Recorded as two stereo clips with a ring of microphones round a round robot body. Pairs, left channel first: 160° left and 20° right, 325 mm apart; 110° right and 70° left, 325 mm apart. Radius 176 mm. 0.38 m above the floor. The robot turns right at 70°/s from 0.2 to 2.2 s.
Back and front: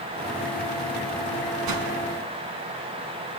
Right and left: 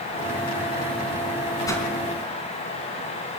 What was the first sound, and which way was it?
A whoosh, 35° right.